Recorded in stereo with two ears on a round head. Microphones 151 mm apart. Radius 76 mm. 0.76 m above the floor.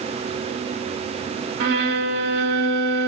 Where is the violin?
60° right (ahead or behind), 2 m.